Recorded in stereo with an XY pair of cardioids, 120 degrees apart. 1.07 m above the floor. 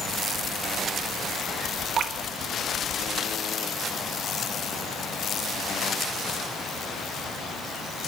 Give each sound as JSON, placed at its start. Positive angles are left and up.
{"t": 2.0, "sound": "dripping", "azimuth_deg": -55, "distance_m": 1.4}